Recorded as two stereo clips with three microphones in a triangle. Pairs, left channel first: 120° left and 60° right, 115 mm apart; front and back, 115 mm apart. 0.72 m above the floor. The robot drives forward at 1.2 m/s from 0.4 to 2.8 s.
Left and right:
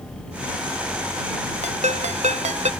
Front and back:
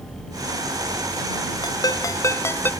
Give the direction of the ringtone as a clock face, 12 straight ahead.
2 o'clock.